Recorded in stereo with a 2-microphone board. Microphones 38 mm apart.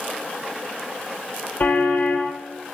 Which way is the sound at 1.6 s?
50° left (ahead or behind).